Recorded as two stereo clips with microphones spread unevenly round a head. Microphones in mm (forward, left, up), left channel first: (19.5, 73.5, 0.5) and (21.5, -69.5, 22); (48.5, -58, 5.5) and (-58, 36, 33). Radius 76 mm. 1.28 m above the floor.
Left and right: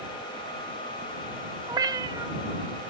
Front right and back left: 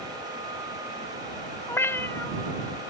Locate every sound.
1.7 s a cat meowing: 125° right